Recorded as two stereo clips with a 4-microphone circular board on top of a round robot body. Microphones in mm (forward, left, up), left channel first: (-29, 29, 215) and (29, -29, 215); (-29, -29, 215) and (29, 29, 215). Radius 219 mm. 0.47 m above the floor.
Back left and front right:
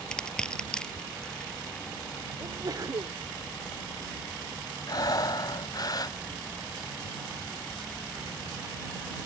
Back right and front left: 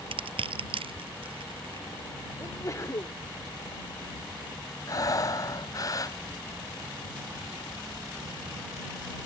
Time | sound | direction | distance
0.1 | crushing | 55° left | ?
2.4 | a sneeze | 85° right | ?
4.9 | breathing | 175° left | ?